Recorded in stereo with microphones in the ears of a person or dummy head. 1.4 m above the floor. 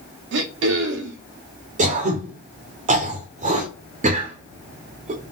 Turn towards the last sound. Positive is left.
turn(degrees=-35)  # may be behind; listen again after turning